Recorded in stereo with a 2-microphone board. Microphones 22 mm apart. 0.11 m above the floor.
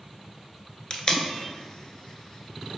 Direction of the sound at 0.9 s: 35° left (ahead or behind).